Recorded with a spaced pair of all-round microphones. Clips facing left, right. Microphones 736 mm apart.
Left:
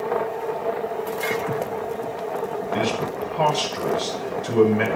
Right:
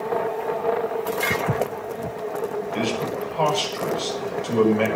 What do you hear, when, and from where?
1.3 s footsteps: 45° right (ahead or behind), 2.0 m
2.7 s a man speaking: 50° left (ahead or behind), 7 m